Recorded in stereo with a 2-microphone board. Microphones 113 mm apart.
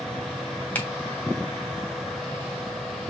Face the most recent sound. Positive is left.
turn(degrees=15)  # may be behind; listen again after turning